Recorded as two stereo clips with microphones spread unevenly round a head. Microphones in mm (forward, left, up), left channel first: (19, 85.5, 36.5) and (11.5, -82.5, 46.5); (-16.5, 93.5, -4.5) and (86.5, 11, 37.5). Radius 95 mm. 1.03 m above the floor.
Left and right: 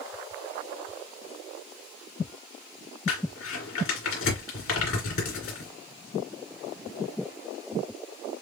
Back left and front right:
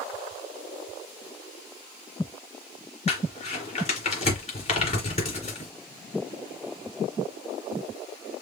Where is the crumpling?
100° left, 2.5 m.